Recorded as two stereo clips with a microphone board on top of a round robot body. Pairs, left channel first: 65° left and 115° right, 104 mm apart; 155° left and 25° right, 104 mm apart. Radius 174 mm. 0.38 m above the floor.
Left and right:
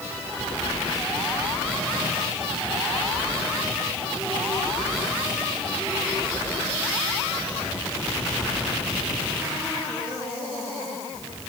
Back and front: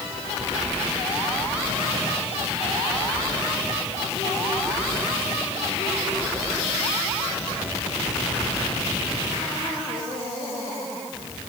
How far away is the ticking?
I don't hear ticking.